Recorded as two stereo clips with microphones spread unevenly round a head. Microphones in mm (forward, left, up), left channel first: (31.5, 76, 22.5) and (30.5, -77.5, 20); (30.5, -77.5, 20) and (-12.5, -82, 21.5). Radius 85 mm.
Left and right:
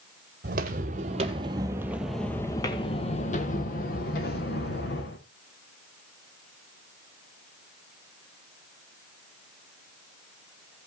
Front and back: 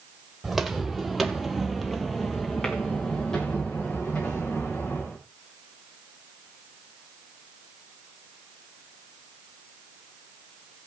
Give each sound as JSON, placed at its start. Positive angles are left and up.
{"t": 0.4, "sound": "footsteps", "azimuth_deg": -90, "distance_m": 1.4}